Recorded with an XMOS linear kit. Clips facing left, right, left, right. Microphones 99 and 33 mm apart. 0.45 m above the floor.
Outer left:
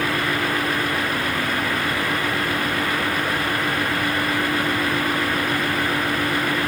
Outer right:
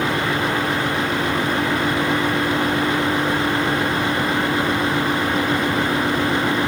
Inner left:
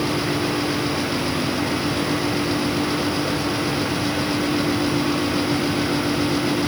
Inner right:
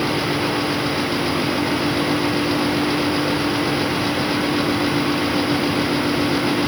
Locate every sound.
Only background noise.